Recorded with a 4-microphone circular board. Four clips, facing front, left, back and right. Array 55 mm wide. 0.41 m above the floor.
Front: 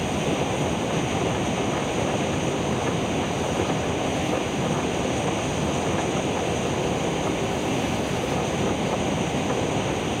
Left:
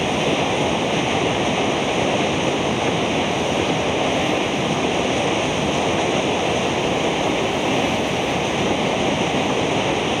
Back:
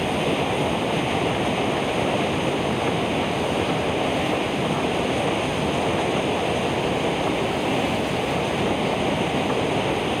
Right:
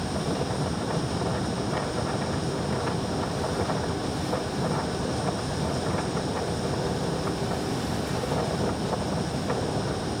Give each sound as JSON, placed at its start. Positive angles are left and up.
{"t": 0.0, "sound": "running water", "azimuth_deg": 105}